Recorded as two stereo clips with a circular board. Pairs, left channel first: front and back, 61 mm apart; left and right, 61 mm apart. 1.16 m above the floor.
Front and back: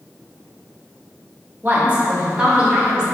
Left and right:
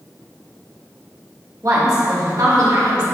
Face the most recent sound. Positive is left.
turn(degrees=-105)